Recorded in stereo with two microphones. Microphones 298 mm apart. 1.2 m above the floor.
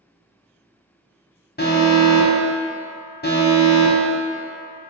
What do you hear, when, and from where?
1.6 s an alarm: 35° left (ahead or behind), 0.6 m